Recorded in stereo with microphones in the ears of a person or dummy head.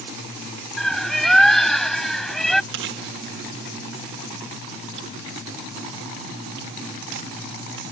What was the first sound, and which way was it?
A bird, 5° left (ahead or behind).